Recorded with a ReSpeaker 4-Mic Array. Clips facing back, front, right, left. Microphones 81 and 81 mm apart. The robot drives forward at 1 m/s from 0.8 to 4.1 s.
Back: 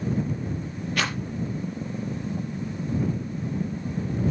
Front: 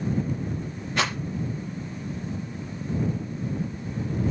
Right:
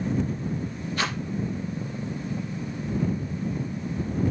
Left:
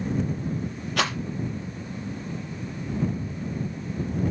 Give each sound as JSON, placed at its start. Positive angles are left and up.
{"t": 1.0, "sound": "a rattle", "azimuth_deg": 70, "distance_m": 7.5}